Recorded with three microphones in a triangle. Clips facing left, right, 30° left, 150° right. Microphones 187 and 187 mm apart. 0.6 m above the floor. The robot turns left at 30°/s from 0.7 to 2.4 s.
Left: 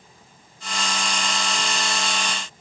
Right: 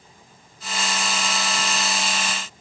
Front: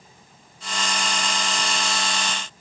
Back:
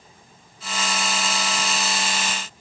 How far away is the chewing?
I don't hear chewing.